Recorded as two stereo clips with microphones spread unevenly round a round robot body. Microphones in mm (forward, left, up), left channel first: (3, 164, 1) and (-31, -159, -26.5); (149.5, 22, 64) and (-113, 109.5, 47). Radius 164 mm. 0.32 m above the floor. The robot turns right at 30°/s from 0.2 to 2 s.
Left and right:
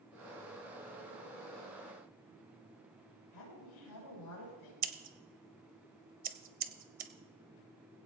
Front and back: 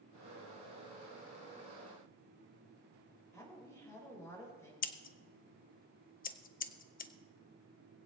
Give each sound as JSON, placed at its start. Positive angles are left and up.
{"t": 3.3, "sound": "a woman speaking", "azimuth_deg": 60, "distance_m": 6.5}
{"t": 4.8, "sound": "scissors", "azimuth_deg": -60, "distance_m": 0.9}